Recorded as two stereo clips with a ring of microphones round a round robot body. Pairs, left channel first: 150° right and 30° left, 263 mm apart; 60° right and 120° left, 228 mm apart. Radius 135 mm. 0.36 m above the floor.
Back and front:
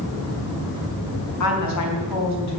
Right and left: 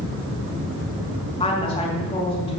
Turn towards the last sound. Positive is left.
turn(degrees=-130)